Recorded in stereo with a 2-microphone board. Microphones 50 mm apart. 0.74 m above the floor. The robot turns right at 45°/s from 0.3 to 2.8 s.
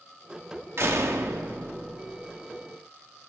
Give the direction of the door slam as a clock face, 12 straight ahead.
4 o'clock.